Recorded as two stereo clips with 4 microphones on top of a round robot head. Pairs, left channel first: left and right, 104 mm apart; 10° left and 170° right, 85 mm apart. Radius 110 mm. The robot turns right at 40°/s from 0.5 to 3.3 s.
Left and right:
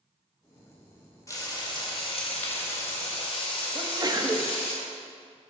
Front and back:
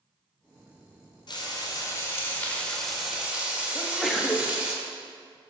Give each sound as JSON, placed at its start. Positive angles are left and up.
{"t": 1.3, "sound": "frying", "azimuth_deg": 35, "distance_m": 2.0}
{"t": 3.8, "sound": "a sneeze", "azimuth_deg": -80, "distance_m": 1.1}